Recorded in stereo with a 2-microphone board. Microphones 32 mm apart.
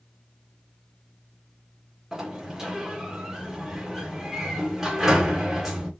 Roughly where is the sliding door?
Centre.